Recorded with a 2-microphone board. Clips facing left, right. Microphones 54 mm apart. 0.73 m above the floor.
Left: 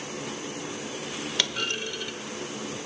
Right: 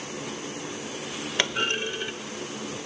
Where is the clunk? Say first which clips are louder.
Right 5 dB; 30° right (ahead or behind), 0.6 m.